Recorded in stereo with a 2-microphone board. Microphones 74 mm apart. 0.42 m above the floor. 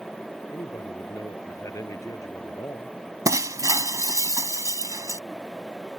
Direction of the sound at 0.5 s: 50° left (ahead or behind).